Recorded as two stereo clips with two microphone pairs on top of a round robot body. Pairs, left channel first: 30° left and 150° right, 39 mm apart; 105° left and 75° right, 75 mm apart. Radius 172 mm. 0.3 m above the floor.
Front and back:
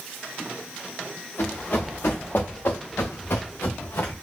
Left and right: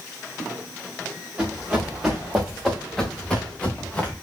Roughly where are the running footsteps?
Ahead.